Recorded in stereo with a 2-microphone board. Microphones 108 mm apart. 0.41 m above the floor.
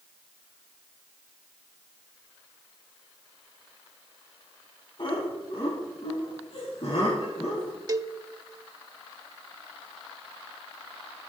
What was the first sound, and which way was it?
Laughter, 50° left (ahead or behind).